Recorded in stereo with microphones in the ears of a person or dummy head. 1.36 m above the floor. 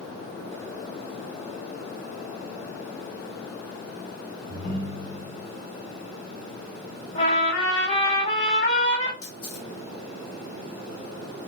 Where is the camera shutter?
55° left (ahead or behind), 1.3 m.